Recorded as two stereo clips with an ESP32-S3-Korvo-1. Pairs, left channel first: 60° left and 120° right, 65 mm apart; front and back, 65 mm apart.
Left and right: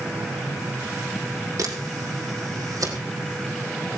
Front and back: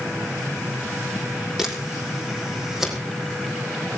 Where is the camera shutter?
95° right, 3.5 m.